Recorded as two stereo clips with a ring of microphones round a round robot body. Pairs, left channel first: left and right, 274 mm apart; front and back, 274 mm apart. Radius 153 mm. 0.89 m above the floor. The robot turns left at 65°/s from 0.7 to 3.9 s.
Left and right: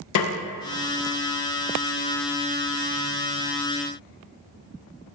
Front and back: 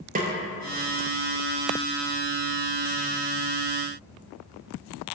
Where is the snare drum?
115° left, 0.5 m.